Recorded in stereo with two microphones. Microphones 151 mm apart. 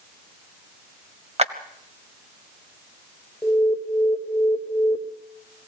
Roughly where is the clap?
Right.